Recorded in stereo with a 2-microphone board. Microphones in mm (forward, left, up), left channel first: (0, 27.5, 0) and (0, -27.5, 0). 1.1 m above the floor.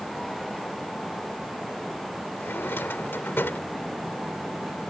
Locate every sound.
2.4 s a drawer: 40° left (ahead or behind)